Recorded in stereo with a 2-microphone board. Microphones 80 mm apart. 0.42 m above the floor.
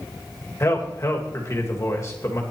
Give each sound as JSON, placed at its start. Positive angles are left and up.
{"t": 0.6, "sound": "a man speaking", "side_deg": 40, "distance_m": 1.7}